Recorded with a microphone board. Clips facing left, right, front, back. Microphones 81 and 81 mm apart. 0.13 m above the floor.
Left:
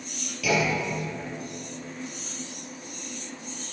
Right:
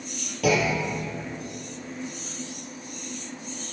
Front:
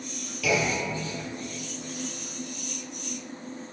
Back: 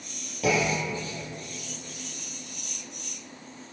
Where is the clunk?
130° right, 2.5 m.